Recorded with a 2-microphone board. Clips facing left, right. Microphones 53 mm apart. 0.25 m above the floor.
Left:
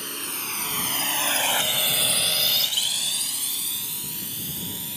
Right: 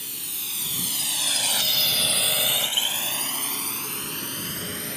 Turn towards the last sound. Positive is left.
turn(degrees=-50)  # may be behind; listen again after turning